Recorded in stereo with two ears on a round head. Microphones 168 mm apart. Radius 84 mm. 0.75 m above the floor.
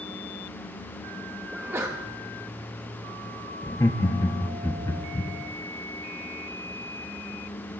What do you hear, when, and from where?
1.5 s a sneeze: 15° right (ahead or behind), 0.7 m
3.6 s laughter: 20° left (ahead or behind), 0.9 m